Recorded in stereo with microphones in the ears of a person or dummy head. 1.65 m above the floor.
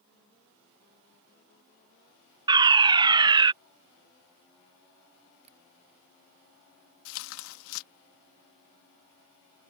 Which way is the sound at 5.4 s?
35° right (ahead or behind).